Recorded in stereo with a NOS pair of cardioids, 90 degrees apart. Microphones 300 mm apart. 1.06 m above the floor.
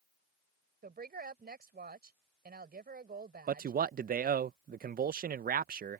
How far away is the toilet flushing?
I don't hear a toilet flushing.